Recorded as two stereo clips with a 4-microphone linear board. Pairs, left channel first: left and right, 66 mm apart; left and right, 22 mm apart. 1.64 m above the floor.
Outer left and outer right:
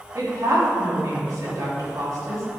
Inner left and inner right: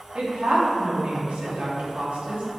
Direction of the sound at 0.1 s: 75° right (ahead or behind).